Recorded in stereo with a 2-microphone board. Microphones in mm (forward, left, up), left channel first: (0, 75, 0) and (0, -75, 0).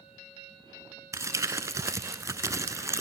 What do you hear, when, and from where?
1.1 s crumpling: 20° right (ahead or behind), 0.6 m